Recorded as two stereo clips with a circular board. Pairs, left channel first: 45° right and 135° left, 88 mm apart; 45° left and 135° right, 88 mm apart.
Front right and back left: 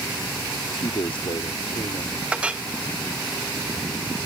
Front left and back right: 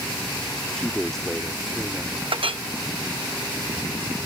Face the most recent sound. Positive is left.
turn(degrees=-145)